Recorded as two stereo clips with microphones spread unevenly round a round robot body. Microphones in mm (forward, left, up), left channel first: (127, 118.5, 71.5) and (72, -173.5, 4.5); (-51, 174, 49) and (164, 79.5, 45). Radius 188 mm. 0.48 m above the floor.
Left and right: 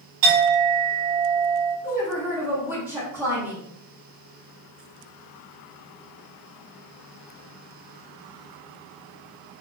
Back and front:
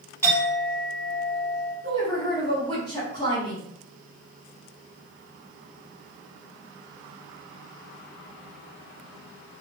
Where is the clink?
120° right, 1.9 m.